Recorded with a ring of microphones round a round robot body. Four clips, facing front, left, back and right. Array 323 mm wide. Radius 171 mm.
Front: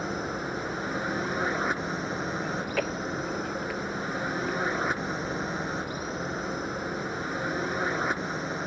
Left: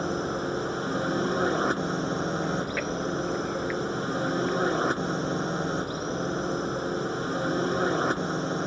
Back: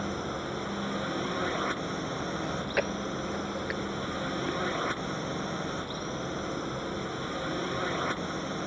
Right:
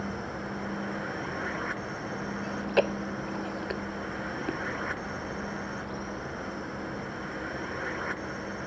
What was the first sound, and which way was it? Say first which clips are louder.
A drone: left 7 dB, front 2 dB; 80° left.